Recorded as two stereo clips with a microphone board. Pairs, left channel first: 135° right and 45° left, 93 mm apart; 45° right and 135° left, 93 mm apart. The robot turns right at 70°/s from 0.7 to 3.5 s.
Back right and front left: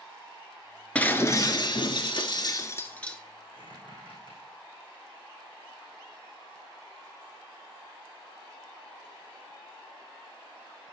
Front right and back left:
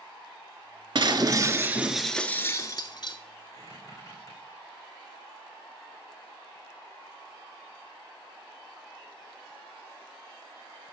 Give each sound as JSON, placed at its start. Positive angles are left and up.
{"t": 0.9, "sound": "breaking glass", "azimuth_deg": 150, "distance_m": 0.6}
{"t": 3.5, "sound": "a squeak", "azimuth_deg": -100, "distance_m": 4.5}